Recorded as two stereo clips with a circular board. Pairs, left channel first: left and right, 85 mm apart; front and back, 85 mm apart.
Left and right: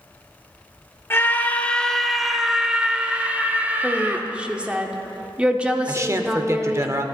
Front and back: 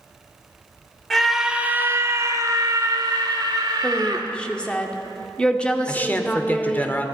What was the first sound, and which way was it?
A scream, 80° left.